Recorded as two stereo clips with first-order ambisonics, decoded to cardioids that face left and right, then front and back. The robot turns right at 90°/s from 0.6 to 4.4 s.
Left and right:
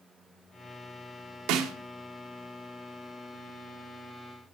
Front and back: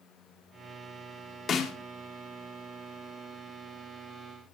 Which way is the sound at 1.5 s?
60° right.